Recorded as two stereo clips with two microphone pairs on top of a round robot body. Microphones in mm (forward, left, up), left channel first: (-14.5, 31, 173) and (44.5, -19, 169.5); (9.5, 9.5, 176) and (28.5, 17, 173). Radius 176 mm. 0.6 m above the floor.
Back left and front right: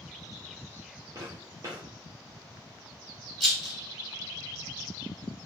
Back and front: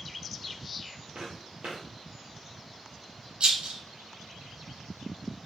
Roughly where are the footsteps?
Ahead.